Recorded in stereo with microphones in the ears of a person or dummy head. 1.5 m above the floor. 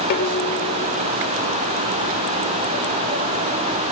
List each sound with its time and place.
0.1 s dishes clattering: 50° left (ahead or behind)